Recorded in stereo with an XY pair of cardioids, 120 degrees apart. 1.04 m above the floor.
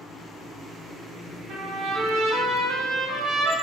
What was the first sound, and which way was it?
A trumpet, 60° right.